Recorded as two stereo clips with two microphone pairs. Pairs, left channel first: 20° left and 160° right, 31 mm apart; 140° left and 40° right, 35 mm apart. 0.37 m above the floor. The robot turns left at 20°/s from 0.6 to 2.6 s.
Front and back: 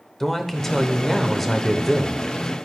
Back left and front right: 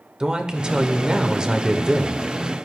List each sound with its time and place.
0.2 s a man speaking: 45° right, 1.0 m; by 2.7 s 85° right, 1.0 m